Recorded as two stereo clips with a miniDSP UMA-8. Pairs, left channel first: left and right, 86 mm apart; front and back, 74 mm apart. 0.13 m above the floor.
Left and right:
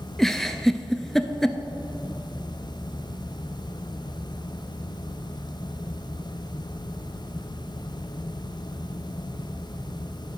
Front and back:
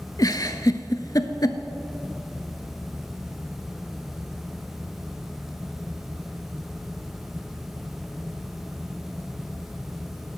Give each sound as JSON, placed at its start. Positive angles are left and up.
{"t": 0.2, "sound": "a giggle", "azimuth_deg": 5, "distance_m": 0.5}